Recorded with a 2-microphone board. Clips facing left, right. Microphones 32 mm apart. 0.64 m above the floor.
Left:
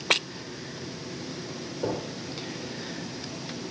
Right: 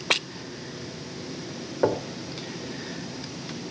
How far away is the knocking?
About 2 m.